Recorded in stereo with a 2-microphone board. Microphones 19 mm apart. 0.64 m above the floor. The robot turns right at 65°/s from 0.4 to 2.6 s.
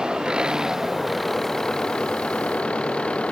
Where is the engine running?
45° right; by 3.3 s 100° left.